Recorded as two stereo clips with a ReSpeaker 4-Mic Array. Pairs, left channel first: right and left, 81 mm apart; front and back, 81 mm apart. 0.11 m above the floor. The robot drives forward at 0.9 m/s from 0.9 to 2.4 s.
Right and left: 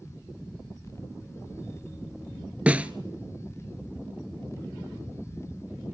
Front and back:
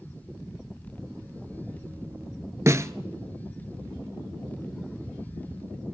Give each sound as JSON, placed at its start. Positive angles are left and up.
{"t": 2.7, "sound": "a snare drum", "azimuth_deg": 155, "distance_m": 0.8}